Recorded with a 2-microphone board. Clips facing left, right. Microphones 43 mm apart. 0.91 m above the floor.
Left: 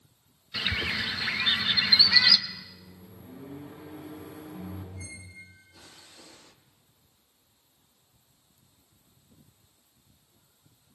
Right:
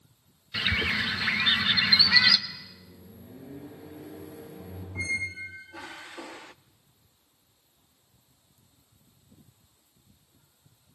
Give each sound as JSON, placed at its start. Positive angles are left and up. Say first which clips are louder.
{"t": 0.5, "sound": "a bird", "louder": "right 3 dB", "side_deg": -15, "distance_m": 1.1}
{"t": 2.5, "sound": "a microwave", "louder": "even", "side_deg": 60, "distance_m": 5.5}
{"t": 5.0, "sound": "a squeak", "louder": "right 15 dB", "side_deg": -60, "distance_m": 0.5}